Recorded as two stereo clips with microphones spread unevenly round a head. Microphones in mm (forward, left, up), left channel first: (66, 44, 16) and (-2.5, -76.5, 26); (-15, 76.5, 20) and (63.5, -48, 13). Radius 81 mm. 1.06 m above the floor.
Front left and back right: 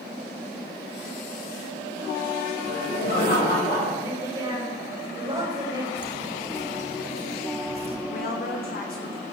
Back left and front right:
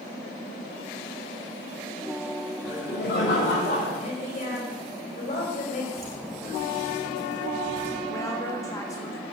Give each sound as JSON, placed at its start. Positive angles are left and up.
{"t": 2.6, "sound": "laughter", "azimuth_deg": 105, "distance_m": 6.5}
{"t": 4.0, "sound": "a woman speaking", "azimuth_deg": 170, "distance_m": 5.5}
{"t": 6.0, "sound": "footsteps", "azimuth_deg": -95, "distance_m": 3.5}
{"t": 8.1, "sound": "a woman speaking", "azimuth_deg": 55, "distance_m": 1.6}